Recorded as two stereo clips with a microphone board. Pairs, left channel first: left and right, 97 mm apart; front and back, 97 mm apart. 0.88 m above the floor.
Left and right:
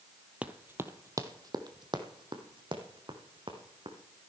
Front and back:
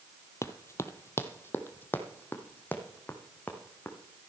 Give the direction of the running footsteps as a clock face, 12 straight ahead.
1 o'clock.